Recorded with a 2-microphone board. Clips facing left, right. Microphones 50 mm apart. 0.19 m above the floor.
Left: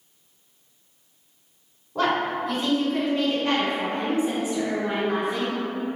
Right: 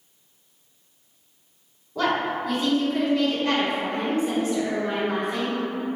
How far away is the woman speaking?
About 1.9 m.